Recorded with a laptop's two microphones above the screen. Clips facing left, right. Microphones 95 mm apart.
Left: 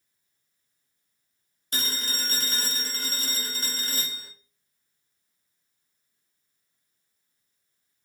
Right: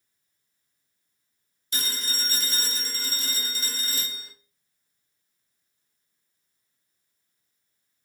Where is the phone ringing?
50° left (ahead or behind), 0.8 m.